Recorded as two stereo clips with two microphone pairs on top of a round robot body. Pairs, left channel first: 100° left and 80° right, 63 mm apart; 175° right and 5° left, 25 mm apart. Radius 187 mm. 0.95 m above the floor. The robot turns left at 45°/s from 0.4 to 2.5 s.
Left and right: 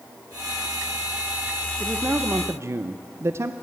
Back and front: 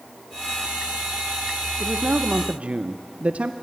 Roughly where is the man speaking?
Ahead.